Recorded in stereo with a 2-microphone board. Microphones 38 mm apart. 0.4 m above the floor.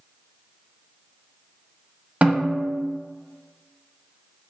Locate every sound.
2.2 s a snare drum: 45° right (ahead or behind), 0.8 m